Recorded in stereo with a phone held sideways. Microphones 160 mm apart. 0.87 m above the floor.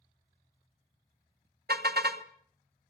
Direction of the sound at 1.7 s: 80° right.